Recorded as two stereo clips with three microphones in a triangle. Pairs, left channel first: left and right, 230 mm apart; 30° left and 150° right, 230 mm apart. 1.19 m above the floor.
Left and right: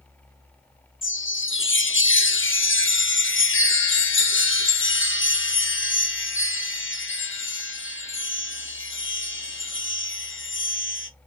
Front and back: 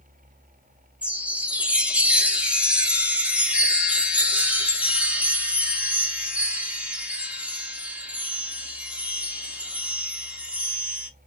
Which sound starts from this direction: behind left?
A chime, at 1.0 s.